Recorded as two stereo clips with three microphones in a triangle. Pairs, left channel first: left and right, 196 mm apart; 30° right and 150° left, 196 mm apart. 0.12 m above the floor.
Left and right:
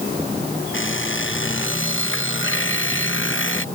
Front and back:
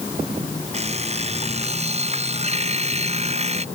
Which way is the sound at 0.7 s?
95° left.